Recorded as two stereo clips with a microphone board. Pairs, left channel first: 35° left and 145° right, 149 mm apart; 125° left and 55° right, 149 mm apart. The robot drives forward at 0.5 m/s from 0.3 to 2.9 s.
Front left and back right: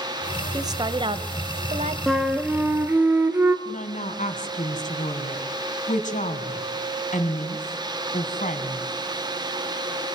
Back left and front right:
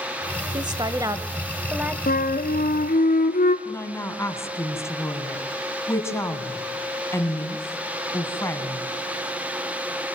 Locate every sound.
0.5 s a woman speaking: 95° right, 1.2 m; by 2.0 s 135° right, 1.4 m
2.1 s a flute: 125° left, 1.3 m; by 3.5 s 140° left, 1.5 m
3.6 s a woman speaking: 55° left, 3.5 m